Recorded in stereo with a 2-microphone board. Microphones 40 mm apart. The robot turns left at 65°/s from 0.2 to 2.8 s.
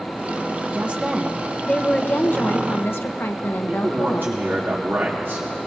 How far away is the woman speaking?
About 0.8 m.